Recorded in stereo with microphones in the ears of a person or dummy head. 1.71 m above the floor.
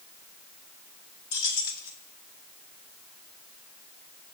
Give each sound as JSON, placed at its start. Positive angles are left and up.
{"t": 1.3, "sound": "keys jangling", "side_deg": 60, "distance_m": 1.4}